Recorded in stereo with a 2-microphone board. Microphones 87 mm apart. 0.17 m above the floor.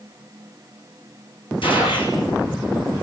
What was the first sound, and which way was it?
A gunshot, 75° left (ahead or behind).